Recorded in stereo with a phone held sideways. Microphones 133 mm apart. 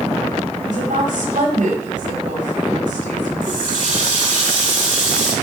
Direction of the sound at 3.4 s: 70° right (ahead or behind).